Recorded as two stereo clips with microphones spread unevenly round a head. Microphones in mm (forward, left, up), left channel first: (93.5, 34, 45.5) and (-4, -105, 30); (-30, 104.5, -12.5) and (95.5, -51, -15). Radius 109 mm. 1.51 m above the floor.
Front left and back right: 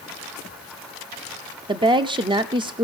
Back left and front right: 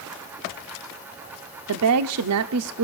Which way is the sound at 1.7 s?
60° right.